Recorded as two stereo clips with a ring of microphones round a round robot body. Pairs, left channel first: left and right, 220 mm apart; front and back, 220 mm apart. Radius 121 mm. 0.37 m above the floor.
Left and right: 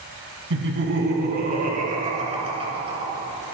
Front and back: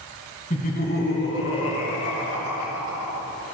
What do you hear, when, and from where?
0.5 s laughter: 60° right, 3.5 m; by 3.2 s 20° right, 6 m